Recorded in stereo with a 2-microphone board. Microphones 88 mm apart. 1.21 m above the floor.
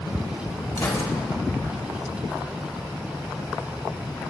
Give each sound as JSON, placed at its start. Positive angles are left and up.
{"t": 0.8, "sound": "a gunshot", "side_deg": 35, "distance_m": 1.6}